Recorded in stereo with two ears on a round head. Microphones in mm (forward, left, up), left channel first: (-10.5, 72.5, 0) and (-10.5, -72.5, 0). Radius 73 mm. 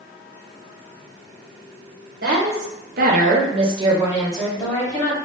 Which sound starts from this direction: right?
A woman speaking, at 2.2 s.